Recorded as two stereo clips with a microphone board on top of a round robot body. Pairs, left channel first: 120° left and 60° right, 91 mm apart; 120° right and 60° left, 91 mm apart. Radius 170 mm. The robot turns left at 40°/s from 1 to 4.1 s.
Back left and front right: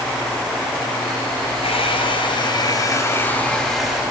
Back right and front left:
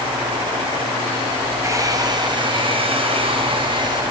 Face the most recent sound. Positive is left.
turn(degrees=20)